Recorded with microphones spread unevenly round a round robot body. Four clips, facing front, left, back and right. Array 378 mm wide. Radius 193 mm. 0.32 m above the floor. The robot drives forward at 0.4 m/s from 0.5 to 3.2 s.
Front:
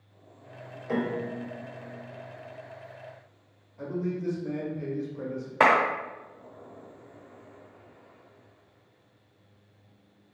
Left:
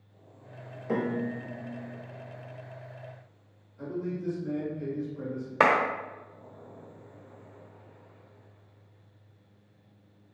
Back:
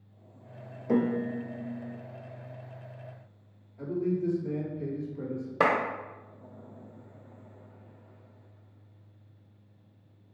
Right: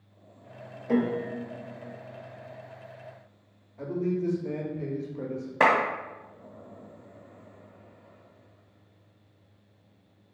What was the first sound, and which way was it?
A piano, 175° left.